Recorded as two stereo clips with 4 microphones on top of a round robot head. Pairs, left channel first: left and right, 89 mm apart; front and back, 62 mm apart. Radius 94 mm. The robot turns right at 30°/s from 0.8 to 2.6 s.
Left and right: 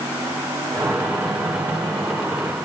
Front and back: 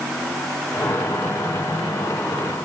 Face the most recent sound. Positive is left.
No sound to turn to.